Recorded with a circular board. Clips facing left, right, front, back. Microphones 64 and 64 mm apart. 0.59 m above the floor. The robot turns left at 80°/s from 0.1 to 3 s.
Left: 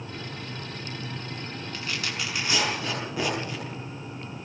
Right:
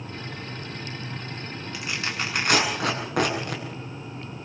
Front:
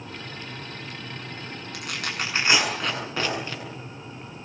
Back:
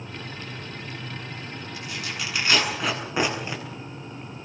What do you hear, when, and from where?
1.7 s tearing paper: 5° right, 8 m; by 3.6 s 105° right, 8 m